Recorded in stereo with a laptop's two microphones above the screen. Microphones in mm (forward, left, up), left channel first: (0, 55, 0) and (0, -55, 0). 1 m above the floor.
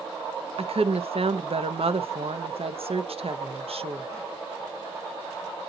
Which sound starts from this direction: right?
A woman speaking, at 0.6 s.